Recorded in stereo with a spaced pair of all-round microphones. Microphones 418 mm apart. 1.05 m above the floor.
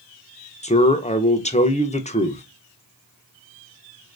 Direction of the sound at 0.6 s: 15° left (ahead or behind).